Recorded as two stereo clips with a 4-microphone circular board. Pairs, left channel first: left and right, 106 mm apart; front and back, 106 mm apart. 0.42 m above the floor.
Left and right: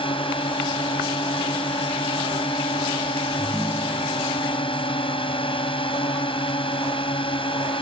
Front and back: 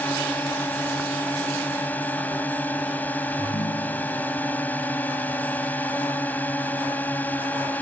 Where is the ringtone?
5° left.